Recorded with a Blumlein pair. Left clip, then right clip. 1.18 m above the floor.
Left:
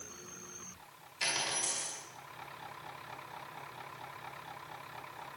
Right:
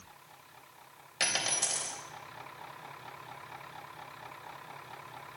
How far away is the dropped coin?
About 3 m.